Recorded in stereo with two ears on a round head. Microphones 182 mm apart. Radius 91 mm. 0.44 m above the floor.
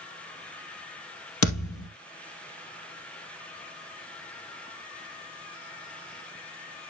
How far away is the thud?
About 2.5 m.